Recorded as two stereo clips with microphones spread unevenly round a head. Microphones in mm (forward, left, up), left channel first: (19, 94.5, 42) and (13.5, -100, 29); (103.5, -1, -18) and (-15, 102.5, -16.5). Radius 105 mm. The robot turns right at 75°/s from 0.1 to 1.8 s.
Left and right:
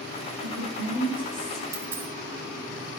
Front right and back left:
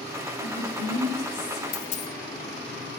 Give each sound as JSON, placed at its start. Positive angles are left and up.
{"t": 0.4, "sound": "a woman speaking", "azimuth_deg": -85, "distance_m": 7.0}
{"t": 1.7, "sound": "a dropped coin", "azimuth_deg": -20, "distance_m": 1.5}